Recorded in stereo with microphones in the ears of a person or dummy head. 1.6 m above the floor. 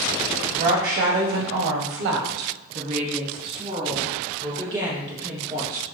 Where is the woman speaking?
35° right (ahead or behind), 0.9 m; by 5.8 s 15° right (ahead or behind), 2.5 m.